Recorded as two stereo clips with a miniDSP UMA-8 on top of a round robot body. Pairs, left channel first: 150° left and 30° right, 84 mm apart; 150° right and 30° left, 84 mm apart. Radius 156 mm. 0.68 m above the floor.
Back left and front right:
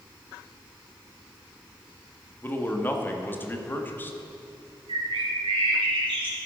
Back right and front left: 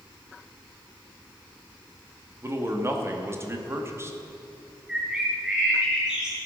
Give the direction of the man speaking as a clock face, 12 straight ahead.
9 o'clock.